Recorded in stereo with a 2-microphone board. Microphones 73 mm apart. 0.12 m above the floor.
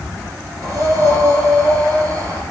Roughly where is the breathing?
Right.